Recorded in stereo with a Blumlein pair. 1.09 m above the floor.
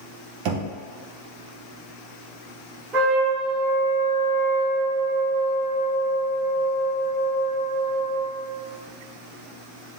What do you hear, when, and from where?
0.5 s knocking: 45° right, 0.7 m
2.9 s a trumpet: 25° right, 1.4 m